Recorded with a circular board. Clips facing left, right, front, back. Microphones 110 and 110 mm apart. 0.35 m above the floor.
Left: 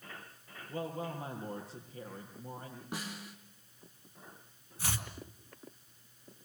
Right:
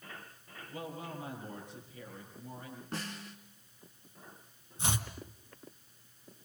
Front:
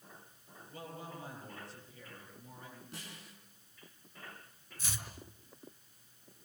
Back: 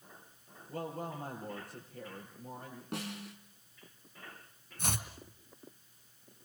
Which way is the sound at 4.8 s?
155° right.